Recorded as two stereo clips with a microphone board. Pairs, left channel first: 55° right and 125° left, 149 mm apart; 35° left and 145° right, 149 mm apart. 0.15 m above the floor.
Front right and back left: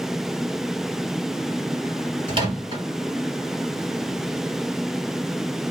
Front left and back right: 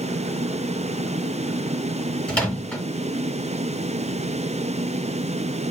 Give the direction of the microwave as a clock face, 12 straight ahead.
8 o'clock.